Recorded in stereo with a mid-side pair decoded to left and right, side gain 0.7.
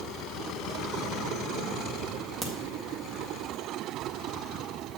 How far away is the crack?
About 1.9 m.